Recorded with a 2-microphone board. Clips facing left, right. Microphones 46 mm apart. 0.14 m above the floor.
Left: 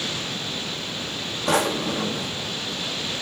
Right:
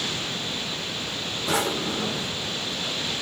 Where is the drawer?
75° left (ahead or behind), 5.5 m.